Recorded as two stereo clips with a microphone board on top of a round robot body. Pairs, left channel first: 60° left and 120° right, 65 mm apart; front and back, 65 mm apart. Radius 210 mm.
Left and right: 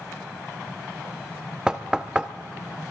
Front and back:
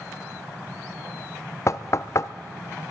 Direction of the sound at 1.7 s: 45° right.